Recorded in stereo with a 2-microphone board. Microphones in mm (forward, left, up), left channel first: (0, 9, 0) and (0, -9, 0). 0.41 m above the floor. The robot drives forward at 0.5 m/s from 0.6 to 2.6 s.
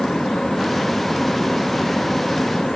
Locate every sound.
Only background noise.